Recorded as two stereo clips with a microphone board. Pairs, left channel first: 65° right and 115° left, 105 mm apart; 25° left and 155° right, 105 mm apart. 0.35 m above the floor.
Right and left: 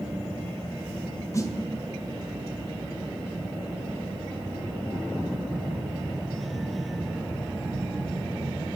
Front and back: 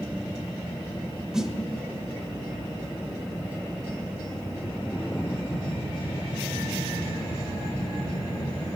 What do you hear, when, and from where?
1.3 s a snare drum: 75° right, 1.4 m